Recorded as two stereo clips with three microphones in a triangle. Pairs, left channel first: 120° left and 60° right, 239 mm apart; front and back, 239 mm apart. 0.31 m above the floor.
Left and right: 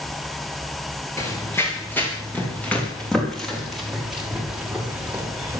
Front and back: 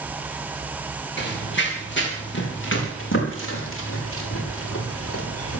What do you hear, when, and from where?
1.2 s running footsteps: 40° left, 7.5 m; by 5.6 s 20° left, 6 m